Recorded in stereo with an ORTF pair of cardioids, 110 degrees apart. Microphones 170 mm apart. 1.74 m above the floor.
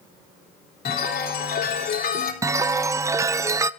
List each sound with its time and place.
0.8 s a chime: 65° left, 3.5 m
2.4 s a chime: 20° right, 0.6 m